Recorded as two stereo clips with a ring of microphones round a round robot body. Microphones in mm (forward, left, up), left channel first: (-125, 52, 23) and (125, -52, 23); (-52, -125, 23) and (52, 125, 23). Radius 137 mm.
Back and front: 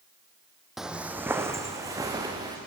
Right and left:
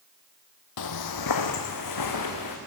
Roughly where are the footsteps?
Right.